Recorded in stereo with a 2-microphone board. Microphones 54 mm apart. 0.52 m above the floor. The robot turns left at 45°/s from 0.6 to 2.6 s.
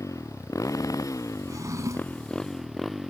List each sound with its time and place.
0.0 s a motorcycle: 70° left (ahead or behind); by 3.1 s centre (ahead or behind)
1.5 s a drawer: 85° right; by 2.3 s 125° right